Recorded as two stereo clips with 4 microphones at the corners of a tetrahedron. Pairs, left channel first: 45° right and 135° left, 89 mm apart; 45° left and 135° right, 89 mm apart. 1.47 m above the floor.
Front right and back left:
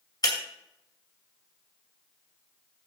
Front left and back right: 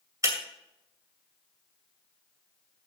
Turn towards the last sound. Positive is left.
turn(degrees=-85)